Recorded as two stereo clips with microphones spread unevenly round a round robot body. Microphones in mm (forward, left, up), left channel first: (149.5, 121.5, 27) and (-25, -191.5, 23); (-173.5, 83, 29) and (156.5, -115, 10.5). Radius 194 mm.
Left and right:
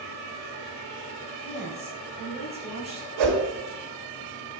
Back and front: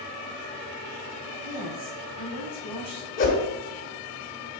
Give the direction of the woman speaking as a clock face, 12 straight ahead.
2 o'clock.